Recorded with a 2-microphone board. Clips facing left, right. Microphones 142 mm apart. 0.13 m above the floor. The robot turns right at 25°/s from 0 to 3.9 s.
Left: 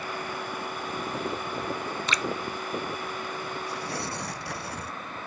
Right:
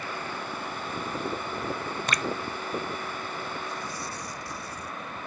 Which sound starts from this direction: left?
Tearing paper, at 3.7 s.